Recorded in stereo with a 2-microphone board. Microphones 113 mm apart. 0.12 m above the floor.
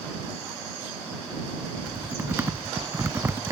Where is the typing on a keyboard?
20° right (ahead or behind).